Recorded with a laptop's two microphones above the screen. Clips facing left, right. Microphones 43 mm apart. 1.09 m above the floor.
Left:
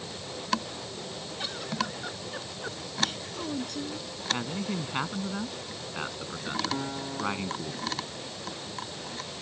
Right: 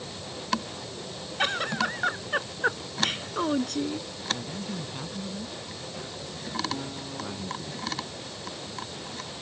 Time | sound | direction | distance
1.4 | a giggle | 60° right (ahead or behind) | ?
4.3 | a man speaking | 65° left (ahead or behind) | ?
6.7 | a guitar | 30° left (ahead or behind) | ?